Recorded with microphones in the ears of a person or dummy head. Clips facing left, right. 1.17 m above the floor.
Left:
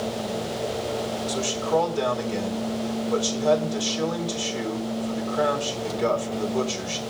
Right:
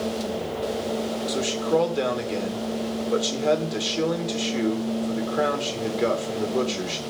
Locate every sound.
1.3 s a man speaking: 25° right (ahead or behind), 4 m